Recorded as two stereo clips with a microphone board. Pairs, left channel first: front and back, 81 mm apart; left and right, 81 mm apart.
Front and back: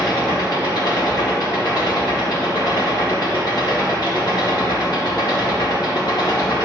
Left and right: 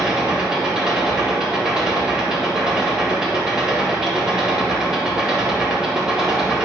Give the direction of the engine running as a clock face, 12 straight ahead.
12 o'clock.